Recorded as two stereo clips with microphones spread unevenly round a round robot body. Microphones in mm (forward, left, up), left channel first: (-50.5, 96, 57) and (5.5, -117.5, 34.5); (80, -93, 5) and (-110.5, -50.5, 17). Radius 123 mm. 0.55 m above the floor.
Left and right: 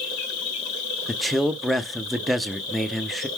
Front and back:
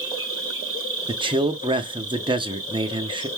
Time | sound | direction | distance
0.0 | an insect | 95° left | 2.5 m
1.1 | a man speaking | 155° right | 0.7 m